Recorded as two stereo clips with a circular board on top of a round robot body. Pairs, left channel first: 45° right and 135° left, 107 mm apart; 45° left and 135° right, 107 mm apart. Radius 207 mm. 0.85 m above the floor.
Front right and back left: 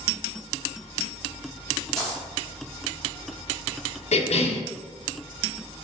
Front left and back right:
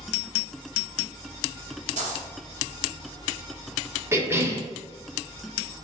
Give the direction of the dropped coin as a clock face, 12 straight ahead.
4 o'clock.